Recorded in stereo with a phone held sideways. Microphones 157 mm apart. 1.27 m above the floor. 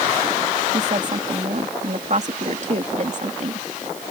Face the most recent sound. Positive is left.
turn(degrees=-50)  # may be behind; listen again after turning